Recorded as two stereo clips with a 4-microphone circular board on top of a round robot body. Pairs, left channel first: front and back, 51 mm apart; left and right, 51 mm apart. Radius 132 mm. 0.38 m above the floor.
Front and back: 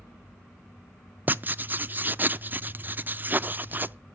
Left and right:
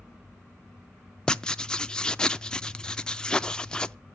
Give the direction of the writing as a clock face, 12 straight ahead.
7 o'clock.